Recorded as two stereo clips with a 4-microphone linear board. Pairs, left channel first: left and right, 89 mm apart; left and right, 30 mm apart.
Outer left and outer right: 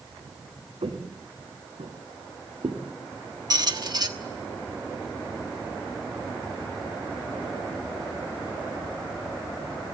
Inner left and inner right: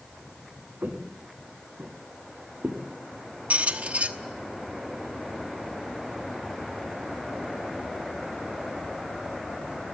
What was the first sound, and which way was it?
Footsteps, 75° right (ahead or behind).